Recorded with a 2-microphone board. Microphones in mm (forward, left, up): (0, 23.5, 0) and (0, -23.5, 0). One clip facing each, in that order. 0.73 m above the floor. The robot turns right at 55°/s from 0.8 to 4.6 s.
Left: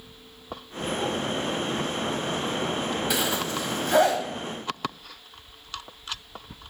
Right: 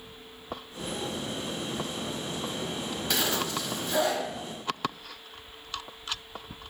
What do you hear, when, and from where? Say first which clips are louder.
3.1 s a zipper: left 2 dB; 10° left (ahead or behind), 0.7 m; by 4.2 s 65° left (ahead or behind), 0.7 m